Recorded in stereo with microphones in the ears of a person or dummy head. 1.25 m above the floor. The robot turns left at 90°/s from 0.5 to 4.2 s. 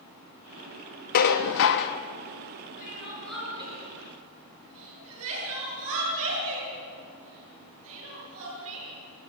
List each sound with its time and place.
1.1 s dishes clattering: 135° left, 1.0 m; by 2.0 s 60° left, 1.0 m
2.8 s crying: 60° left (ahead or behind), 9 m; by 9.3 s 70° right (ahead or behind), 9 m